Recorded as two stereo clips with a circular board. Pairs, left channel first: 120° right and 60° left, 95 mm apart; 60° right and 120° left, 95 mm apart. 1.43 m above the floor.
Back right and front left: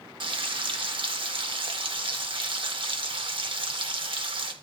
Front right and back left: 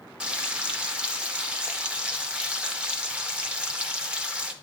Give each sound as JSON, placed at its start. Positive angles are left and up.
{"t": 0.2, "sound": "frying", "azimuth_deg": 45, "distance_m": 0.6}